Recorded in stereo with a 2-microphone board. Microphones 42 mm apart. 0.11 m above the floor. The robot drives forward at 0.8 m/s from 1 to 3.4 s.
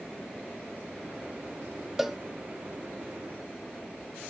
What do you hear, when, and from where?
2.0 s a cowbell: 5° right (ahead or behind), 0.6 m